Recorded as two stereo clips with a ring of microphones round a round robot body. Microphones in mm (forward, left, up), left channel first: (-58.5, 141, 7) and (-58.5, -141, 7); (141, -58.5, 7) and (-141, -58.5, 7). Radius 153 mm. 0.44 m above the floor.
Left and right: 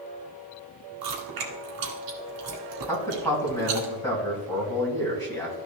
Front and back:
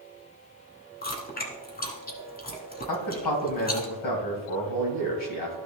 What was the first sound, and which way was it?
Chewing, 60° right.